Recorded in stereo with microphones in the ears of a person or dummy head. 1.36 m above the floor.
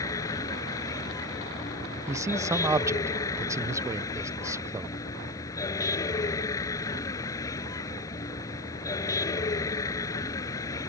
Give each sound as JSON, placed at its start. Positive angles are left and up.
{"t": 0.0, "sound": "a vehicle", "side_deg": 25}
{"t": 2.1, "sound": "a man speaking", "side_deg": -10}